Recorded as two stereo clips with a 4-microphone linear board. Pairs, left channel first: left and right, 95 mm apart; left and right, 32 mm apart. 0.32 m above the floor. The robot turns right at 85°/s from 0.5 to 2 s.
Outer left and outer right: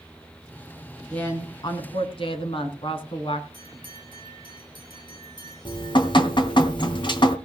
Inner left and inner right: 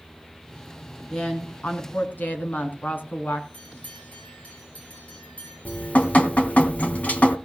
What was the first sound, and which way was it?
A woman speaking, 10° left.